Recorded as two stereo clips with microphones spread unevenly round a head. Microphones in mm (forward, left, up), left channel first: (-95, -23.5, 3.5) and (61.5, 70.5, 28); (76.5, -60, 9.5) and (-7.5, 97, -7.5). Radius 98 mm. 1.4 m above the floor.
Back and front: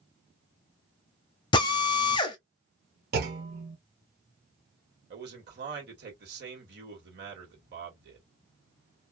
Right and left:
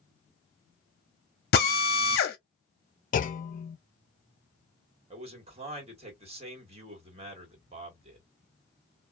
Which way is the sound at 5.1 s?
60° left.